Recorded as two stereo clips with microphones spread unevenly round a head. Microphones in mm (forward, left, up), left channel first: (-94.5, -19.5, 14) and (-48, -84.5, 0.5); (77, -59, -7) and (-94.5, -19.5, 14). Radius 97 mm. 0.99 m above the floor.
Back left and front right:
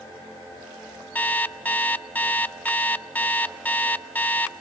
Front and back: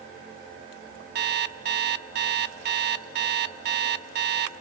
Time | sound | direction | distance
1.1 | an alarm clock | 165° right | 1.3 m